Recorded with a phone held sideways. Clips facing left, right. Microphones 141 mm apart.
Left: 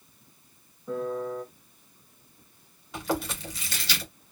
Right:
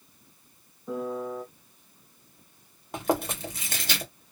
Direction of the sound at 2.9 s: 50° right (ahead or behind).